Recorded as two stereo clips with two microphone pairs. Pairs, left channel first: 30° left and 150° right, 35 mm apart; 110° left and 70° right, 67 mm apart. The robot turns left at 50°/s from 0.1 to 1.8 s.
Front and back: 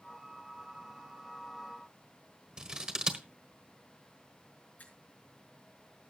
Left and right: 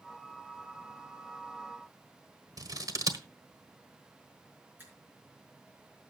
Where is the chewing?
No chewing in this recording.